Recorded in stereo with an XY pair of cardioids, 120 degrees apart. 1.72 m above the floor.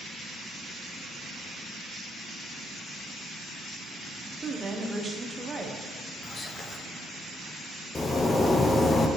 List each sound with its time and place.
4.4 s a woman speaking: 20° right, 1.0 m
6.2 s whispering: 25° left, 1.0 m
8.0 s a zipper: 20° left, 0.6 m